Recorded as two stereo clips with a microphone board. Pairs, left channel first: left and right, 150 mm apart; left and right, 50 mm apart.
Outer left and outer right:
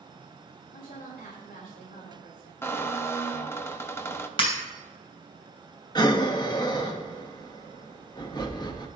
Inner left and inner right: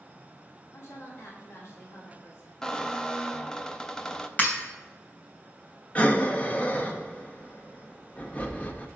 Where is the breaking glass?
35° left (ahead or behind), 3 m.